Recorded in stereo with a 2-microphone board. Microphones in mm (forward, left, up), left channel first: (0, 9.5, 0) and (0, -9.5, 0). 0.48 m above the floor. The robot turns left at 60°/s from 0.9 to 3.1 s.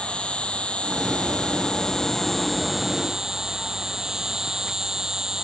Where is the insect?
100° left; by 5.4 s 35° right.